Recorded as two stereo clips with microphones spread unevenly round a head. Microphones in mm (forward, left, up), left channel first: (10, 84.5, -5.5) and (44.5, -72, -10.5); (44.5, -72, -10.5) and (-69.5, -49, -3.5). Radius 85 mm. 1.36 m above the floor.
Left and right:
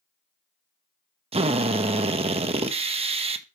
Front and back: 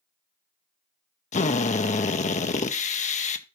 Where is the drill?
25° right, 1.0 m.